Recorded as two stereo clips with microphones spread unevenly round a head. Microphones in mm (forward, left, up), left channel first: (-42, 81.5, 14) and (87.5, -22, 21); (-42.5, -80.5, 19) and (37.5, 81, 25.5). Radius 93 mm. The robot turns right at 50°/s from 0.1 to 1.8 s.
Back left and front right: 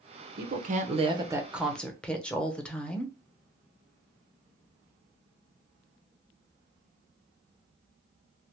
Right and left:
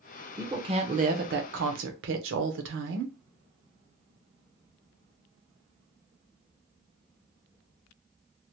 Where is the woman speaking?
15° right, 0.7 m; by 3.1 s 60° left, 0.7 m.